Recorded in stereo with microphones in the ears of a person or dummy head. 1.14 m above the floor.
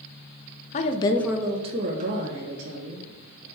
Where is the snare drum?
I don't hear a snare drum.